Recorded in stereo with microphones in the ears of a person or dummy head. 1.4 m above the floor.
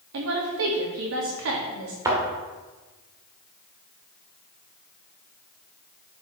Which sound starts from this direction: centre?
A thud, at 2.0 s.